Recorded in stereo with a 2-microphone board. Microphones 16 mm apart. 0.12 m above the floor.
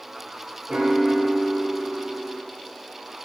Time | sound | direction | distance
0.7 | a piano | 80° right | 0.9 m